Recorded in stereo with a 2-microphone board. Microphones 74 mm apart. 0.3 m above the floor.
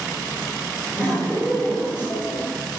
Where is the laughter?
25° left (ahead or behind), 1.4 m.